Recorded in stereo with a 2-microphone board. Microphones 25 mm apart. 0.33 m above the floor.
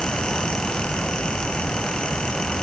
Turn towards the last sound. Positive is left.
No sound to turn to.